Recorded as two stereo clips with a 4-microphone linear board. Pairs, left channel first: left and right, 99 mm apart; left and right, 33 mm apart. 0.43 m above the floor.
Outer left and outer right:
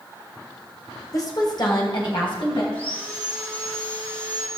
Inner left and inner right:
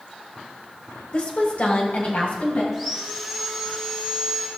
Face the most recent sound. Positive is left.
turn(degrees=15)  # may be behind; listen again after turning